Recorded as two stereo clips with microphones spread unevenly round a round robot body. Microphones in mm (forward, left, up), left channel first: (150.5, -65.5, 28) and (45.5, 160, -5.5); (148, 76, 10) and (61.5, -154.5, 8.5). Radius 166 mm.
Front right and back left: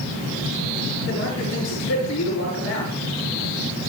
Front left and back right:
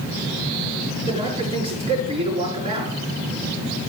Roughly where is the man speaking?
Ahead right.